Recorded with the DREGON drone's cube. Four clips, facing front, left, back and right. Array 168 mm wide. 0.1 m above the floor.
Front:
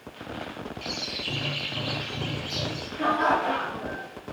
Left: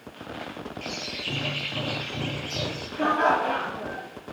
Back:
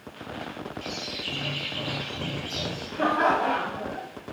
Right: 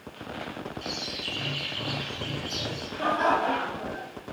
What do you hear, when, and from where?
0.8 s a bird: 80° left, 2 m
3.0 s laughter: 150° left, 2.5 m